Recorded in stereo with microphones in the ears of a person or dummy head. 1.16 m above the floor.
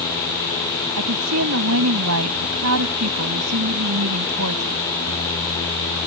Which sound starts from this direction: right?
A woman speaking, at 1.0 s.